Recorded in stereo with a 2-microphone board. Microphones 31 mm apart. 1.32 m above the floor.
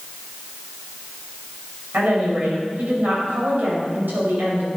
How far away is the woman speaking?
About 5.5 m.